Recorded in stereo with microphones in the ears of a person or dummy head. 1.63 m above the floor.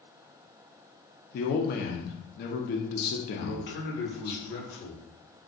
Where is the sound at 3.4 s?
50° left (ahead or behind), 1.2 m.